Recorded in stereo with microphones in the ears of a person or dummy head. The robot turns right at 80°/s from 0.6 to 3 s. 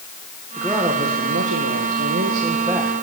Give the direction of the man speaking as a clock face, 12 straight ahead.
6 o'clock.